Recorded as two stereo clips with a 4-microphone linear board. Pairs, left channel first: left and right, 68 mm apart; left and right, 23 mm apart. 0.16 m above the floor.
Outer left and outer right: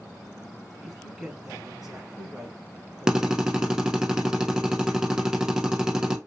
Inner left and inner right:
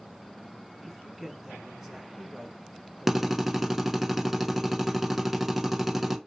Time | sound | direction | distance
0.8 | a man speaking | 5° right (ahead or behind) | 1.5 m
3.1 | a drill | 10° right (ahead or behind) | 0.7 m